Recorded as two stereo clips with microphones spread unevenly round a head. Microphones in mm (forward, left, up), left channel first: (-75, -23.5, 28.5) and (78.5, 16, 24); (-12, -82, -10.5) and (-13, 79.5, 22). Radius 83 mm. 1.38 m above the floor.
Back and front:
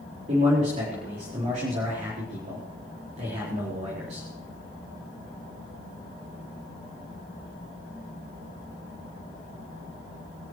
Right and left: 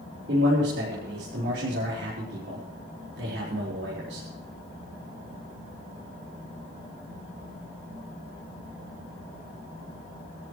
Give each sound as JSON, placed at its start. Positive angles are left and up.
{"t": 0.3, "sound": "a man speaking", "azimuth_deg": 60, "distance_m": 5.0}